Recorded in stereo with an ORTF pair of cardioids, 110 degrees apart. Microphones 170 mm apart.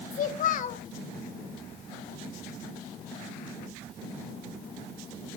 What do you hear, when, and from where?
0.1 s a child speaking: 50° left, 2.5 m